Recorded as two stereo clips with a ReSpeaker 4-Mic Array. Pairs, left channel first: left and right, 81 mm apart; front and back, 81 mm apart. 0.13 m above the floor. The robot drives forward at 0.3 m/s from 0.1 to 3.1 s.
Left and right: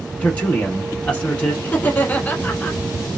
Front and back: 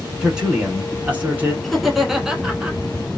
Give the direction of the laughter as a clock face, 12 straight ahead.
9 o'clock.